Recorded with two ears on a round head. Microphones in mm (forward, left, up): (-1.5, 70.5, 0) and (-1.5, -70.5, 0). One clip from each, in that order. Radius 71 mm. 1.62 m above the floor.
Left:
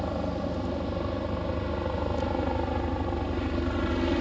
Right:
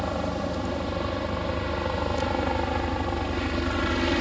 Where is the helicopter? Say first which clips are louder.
Right 3 dB; 50° right (ahead or behind).